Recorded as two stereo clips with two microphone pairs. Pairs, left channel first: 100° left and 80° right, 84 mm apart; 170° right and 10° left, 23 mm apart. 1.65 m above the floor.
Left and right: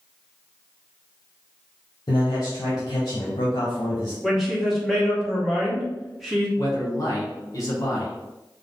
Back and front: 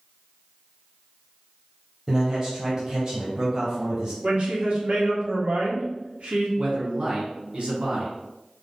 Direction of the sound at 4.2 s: 5° left.